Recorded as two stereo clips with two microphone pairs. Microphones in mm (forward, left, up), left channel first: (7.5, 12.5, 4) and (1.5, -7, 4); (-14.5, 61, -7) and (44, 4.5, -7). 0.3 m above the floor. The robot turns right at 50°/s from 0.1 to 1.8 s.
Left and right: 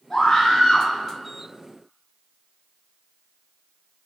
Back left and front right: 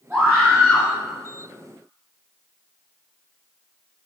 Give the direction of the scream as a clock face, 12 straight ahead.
11 o'clock.